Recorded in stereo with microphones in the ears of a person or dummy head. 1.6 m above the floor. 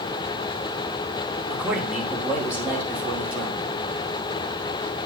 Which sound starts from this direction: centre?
A man speaking, at 1.5 s.